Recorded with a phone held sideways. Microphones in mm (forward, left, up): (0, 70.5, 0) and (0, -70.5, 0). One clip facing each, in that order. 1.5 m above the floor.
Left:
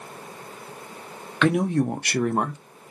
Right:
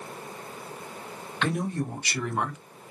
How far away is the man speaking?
About 0.8 m.